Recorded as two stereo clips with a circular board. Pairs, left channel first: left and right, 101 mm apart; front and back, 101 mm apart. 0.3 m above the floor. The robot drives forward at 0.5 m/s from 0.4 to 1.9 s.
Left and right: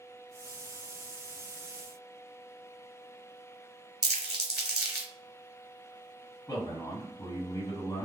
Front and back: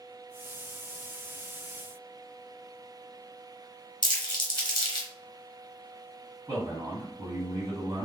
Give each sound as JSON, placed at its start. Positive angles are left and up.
{"t": 4.0, "sound": "crumpling", "azimuth_deg": -10, "distance_m": 1.1}
{"t": 6.5, "sound": "a man speaking", "azimuth_deg": 135, "distance_m": 1.7}